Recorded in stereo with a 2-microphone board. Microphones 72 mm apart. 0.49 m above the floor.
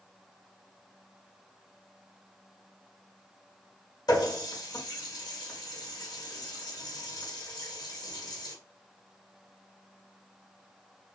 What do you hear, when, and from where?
4.1 s a running tap: 60° left (ahead or behind), 1.1 m